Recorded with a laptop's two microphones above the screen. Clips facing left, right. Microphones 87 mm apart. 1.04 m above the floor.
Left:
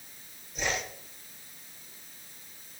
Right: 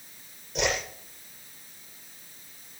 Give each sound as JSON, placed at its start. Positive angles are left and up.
{"t": 0.6, "sound": "a whoosh", "side_deg": -80, "distance_m": 10.0}